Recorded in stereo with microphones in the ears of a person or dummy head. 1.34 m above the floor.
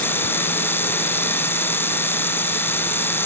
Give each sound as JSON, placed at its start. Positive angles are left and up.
{"t": 0.0, "sound": "a machine running", "side_deg": 10}